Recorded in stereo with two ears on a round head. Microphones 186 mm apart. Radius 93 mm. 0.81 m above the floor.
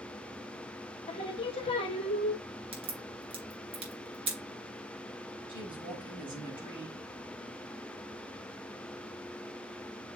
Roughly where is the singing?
Left.